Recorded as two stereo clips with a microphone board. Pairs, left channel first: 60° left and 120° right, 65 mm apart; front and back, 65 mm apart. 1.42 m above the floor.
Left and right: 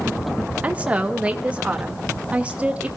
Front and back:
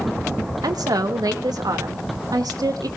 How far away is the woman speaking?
About 1.8 m.